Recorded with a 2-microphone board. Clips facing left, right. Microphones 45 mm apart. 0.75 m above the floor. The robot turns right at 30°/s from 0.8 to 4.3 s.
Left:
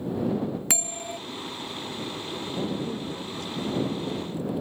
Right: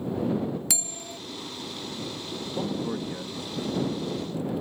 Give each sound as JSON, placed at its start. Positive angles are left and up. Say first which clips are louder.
{"t": 0.7, "sound": "a bell", "louder": "left 4 dB", "side_deg": 45}
{"t": 2.6, "sound": "a man speaking", "louder": "right 1 dB", "azimuth_deg": -80}